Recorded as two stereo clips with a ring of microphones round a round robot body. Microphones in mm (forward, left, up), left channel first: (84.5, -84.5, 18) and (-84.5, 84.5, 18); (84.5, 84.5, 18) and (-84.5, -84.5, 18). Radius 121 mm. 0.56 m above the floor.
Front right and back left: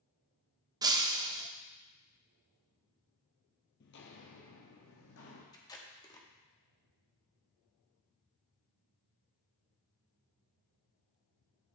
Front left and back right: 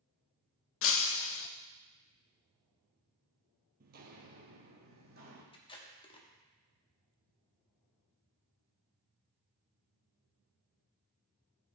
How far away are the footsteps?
About 0.9 m.